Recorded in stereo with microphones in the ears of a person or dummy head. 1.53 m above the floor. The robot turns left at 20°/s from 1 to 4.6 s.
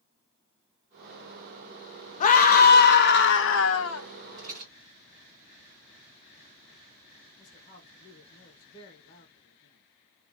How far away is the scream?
About 0.7 m.